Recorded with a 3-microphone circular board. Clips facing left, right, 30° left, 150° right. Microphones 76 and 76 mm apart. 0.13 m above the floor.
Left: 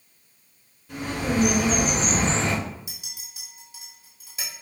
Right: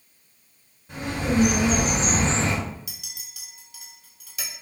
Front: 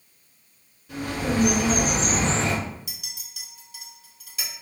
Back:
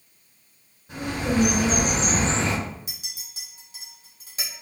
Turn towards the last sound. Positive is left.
turn(degrees=150)